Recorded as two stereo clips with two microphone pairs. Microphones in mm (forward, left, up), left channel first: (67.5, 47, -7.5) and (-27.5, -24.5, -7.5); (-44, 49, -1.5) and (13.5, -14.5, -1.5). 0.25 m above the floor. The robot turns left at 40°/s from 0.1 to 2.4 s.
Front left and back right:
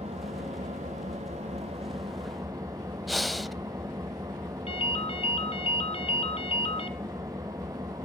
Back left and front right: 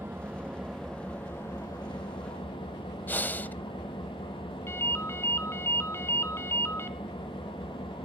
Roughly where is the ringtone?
Left.